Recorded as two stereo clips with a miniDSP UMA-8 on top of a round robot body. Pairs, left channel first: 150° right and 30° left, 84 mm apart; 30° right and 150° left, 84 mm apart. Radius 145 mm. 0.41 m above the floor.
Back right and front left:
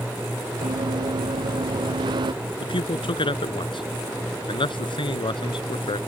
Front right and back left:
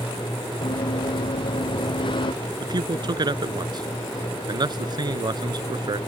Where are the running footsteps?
Straight ahead.